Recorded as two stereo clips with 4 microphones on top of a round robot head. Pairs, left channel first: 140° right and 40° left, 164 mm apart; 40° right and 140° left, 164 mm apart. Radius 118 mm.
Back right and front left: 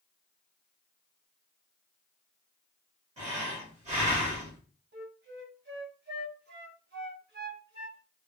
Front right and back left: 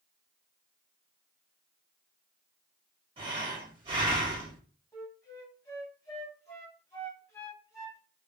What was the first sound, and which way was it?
Breathing, 85° left.